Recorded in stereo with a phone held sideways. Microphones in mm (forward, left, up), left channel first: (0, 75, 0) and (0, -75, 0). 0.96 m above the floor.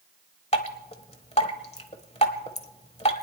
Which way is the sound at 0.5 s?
40° left (ahead or behind).